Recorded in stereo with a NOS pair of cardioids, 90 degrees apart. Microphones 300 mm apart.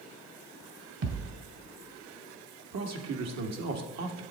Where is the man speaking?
60° right, 1.5 m.